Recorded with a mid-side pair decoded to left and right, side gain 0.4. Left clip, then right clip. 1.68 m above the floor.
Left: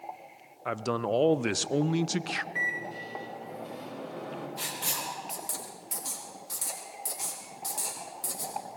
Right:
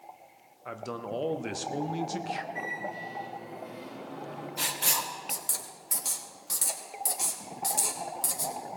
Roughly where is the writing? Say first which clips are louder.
Right 5 dB; ahead right.